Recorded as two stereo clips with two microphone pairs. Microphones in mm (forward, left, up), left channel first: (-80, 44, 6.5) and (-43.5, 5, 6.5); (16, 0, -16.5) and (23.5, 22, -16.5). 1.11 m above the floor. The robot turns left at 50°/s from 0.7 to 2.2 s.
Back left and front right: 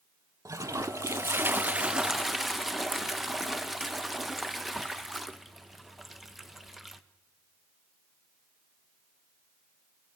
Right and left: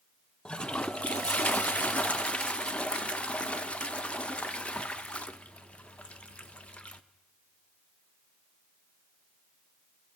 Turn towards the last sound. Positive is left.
turn(degrees=-140)